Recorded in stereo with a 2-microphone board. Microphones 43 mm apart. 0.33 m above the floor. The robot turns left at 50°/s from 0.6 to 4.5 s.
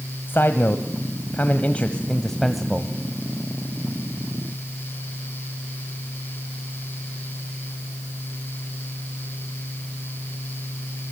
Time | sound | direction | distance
0.3 | a man speaking | 95° left | 1.5 m